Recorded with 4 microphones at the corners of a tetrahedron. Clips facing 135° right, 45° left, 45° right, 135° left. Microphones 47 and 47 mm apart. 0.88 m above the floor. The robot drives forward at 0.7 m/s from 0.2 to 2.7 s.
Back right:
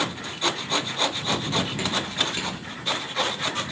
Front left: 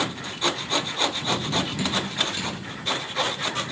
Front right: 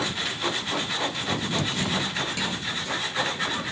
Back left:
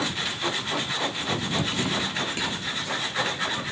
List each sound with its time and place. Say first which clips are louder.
1.8 s dripping: even, even; straight behind, 3 m